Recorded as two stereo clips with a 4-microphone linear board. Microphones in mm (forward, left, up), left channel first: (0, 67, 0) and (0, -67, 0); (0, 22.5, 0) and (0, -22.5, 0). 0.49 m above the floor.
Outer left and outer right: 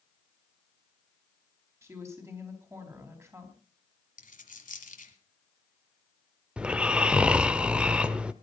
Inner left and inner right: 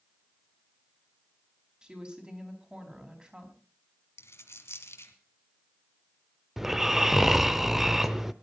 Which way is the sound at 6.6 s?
10° right (ahead or behind).